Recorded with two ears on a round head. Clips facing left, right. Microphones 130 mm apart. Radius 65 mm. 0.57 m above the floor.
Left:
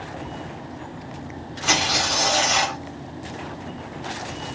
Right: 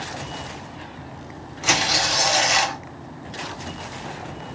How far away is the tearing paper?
About 1.1 m.